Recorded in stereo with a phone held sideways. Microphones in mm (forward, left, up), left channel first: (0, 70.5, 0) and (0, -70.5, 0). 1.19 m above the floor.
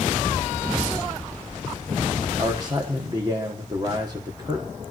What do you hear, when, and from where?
2.4 s a man speaking: 25° right (ahead or behind), 1.1 m